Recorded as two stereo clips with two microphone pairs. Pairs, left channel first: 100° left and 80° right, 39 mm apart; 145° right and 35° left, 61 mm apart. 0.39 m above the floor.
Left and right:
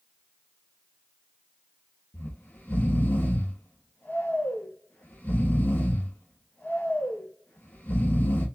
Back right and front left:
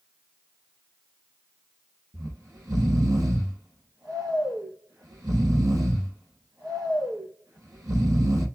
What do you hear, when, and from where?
2.1 s snoring: 55° left, 3 m